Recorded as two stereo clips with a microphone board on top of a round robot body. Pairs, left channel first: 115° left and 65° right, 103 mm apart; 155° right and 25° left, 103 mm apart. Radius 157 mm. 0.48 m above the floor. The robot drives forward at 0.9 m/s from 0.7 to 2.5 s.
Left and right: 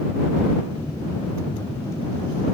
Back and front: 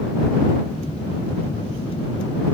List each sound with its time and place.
Only background noise.